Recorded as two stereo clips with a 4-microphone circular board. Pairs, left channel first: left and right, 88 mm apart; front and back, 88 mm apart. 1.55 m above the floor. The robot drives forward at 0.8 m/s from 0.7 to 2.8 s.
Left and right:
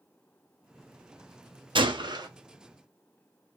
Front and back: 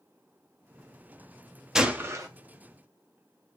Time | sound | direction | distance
1.8 | a gunshot | 95° right | 0.6 m